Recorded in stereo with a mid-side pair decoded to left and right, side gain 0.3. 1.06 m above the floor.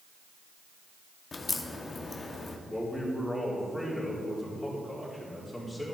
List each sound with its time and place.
1.3 s a crack: 50° left, 1.0 m
2.7 s a man speaking: 20° left, 3.5 m